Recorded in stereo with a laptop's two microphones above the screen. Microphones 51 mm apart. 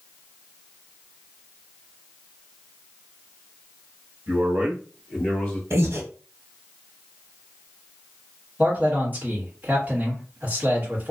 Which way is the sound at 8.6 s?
30° right (ahead or behind).